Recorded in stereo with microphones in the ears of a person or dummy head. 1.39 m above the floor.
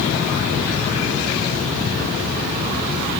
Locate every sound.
Only background noise.